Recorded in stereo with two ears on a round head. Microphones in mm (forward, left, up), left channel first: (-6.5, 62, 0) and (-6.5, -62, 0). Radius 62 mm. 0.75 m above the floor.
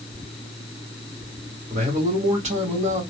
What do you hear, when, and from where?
1.7 s a man speaking: 50° right (ahead or behind), 1.7 m